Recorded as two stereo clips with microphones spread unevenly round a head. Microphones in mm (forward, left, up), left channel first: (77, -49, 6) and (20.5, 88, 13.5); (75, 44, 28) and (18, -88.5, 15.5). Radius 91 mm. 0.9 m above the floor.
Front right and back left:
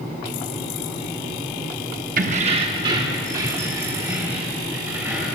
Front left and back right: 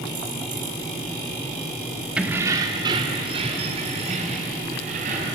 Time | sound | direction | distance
2.2 | keys jangling | 160° left | 1.0 m